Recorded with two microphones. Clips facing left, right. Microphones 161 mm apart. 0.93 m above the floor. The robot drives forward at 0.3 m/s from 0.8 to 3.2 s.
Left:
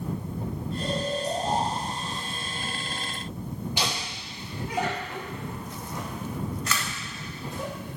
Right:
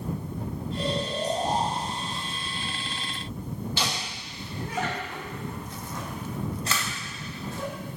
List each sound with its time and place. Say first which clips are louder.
0.8 s snoring: even; 55° right (ahead or behind), 2.5 m; by 2.2 s 65° right (ahead or behind), 2 m
3.8 s laughter: left 1 dB; 15° left (ahead or behind), 1.4 m
6.7 s a camera shutter: even; 30° right (ahead or behind), 1.2 m